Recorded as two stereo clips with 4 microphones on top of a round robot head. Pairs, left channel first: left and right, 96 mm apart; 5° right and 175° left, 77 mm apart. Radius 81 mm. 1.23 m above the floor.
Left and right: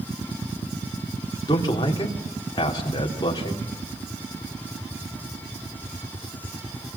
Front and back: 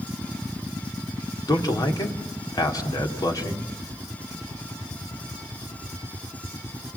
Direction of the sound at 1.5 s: 35° left.